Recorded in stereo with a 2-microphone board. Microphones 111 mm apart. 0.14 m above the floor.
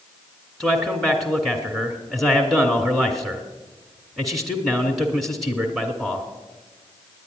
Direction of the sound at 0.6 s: Centre (ahead or behind).